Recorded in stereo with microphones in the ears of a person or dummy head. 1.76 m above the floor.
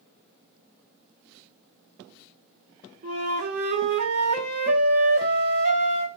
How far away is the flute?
About 2.5 m.